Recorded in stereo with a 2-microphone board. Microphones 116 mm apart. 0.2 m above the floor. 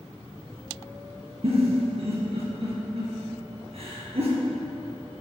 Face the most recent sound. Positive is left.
turn(degrees=-60)  # may be behind; listen again after turning